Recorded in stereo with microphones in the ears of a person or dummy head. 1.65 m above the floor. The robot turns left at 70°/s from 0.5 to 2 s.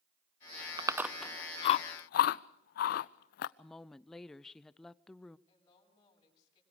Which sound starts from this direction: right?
Chewing, at 0.8 s.